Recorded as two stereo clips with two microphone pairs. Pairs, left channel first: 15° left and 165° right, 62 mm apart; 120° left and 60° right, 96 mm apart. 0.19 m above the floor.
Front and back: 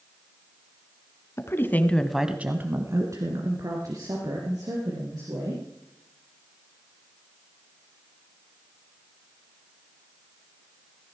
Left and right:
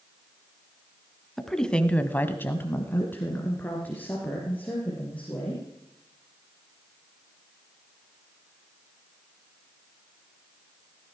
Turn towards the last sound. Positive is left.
turn(degrees=-165)